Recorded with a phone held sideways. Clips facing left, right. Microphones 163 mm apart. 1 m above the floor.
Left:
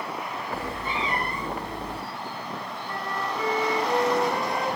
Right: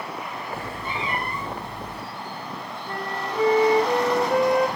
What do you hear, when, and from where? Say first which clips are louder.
0.5 s a cat meowing: left 1 dB; 35° left (ahead or behind), 6.5 m; by 2.0 s 30° left (ahead or behind), 5.5 m
2.9 s a flute: right 1 dB; 65° right (ahead or behind), 4.5 m